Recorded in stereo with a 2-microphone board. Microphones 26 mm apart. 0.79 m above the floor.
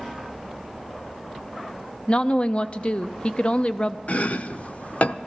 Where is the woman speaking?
40° left (ahead or behind), 0.6 m.